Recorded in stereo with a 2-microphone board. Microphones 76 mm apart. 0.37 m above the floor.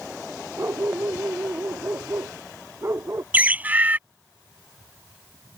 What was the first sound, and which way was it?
A dog barking, 35° right (ahead or behind).